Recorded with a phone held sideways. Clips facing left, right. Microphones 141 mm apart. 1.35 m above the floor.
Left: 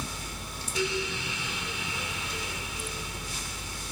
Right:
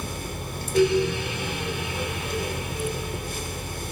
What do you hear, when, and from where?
0.0 s a fan: 55° right (ahead or behind), 1.6 m